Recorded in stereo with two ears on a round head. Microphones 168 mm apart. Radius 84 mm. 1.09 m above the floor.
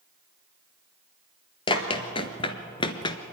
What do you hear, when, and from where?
1.7 s running footsteps: 25° left (ahead or behind), 1.5 m; by 3.2 s 20° left (ahead or behind), 1.1 m